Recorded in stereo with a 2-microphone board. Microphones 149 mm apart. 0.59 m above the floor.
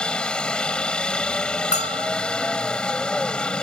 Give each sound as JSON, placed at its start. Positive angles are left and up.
{"t": 0.0, "sound": "a helicopter", "side_deg": 5}
{"t": 1.7, "sound": "a bell", "side_deg": 50}